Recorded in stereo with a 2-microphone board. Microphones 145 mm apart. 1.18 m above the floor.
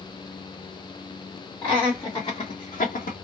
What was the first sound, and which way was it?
Laughter, 10° left (ahead or behind).